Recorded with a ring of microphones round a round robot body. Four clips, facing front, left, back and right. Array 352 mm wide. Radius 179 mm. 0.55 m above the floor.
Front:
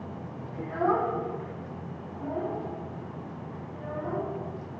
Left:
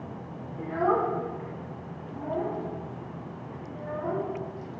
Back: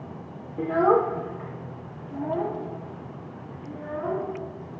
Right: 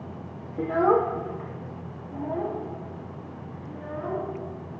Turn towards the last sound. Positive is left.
turn(degrees=-170)